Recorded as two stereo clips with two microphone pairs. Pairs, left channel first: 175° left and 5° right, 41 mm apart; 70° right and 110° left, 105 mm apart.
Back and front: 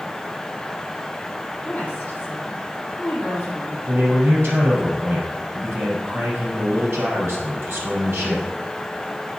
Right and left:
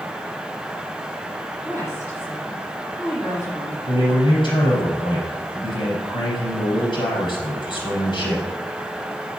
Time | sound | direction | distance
1.6 | a woman speaking | 130° right | 6 m
3.9 | a man speaking | 30° right | 6 m